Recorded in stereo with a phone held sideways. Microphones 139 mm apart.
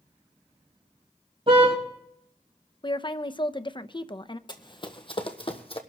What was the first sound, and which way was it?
A car horn, 40° right (ahead or behind).